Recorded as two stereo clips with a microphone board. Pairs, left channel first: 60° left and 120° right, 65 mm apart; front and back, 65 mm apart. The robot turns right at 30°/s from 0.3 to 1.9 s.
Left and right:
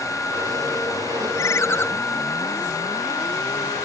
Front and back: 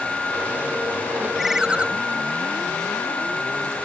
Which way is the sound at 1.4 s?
95° left.